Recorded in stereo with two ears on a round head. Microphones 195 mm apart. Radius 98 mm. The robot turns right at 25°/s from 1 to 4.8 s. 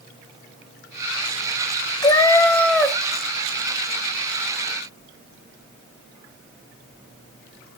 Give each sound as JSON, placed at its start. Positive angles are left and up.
{"t": 2.0, "sound": "a cat meowing", "side_deg": 20, "distance_m": 0.8}